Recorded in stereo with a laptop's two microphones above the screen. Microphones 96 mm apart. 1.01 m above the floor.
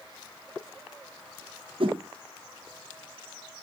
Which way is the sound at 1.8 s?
60° right (ahead or behind).